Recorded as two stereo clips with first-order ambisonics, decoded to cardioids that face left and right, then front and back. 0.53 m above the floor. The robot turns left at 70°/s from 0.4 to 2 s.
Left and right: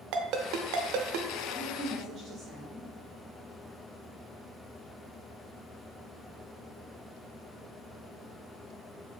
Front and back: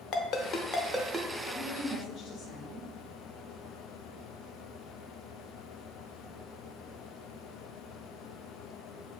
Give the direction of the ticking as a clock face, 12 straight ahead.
I don't hear ticking.